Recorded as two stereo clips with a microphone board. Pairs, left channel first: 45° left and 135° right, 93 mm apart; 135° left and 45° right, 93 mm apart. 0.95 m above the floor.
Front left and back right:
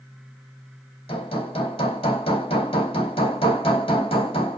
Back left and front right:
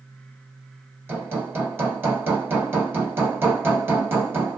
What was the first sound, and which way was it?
Hammering, 25° left.